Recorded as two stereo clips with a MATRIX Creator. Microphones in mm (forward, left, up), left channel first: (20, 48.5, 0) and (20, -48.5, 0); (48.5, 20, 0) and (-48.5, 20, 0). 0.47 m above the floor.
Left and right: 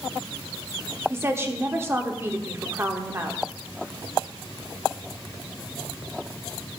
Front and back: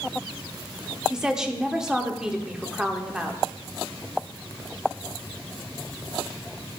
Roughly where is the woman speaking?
Right.